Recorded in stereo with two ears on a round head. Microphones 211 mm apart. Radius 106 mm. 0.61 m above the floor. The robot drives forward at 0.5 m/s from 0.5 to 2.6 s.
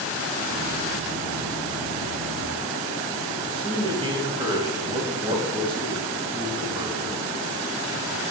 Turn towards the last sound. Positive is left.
turn(degrees=-20)  # may be behind; listen again after turning